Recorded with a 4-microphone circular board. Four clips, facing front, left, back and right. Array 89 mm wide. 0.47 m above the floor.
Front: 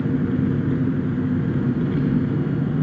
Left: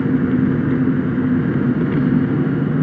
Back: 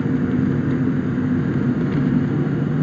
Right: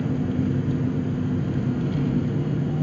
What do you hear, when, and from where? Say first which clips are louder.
0.0 s an engine running: left 8 dB, back 2 dB; 105° left, 1.5 m